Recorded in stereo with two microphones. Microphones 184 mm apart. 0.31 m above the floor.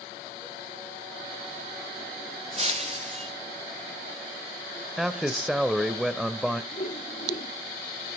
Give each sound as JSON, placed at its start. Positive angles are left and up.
{"t": 2.6, "sound": "breaking glass", "side_deg": -35, "distance_m": 3.5}
{"t": 5.0, "sound": "a man speaking", "side_deg": 0, "distance_m": 0.9}
{"t": 6.7, "sound": "a whoosh", "side_deg": 50, "distance_m": 1.1}